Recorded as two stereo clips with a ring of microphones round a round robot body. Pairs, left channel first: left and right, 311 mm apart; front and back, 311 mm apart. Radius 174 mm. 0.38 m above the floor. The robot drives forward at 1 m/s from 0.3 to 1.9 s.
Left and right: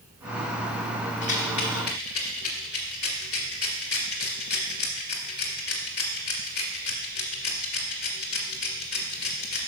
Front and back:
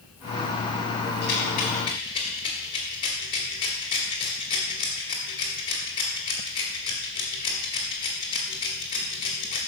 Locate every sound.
1.2 s a rattle: 50° left, 2.5 m; by 9.6 s 70° left, 2.0 m